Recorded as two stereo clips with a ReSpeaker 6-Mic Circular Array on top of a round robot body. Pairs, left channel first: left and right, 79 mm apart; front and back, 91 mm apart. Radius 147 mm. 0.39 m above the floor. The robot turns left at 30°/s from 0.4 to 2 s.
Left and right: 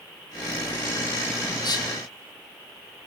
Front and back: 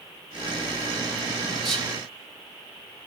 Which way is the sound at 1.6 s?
90° left.